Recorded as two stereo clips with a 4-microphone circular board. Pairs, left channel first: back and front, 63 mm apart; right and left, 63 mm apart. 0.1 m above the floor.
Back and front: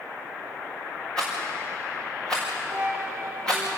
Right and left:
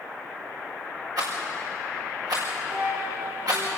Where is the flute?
45° left, 2.0 m.